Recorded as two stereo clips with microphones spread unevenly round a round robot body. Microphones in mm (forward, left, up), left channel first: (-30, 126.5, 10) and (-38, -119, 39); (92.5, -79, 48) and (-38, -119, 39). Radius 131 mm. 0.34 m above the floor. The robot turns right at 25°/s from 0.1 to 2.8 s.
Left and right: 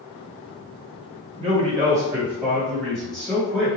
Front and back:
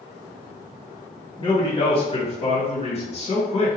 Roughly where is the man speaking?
Ahead right.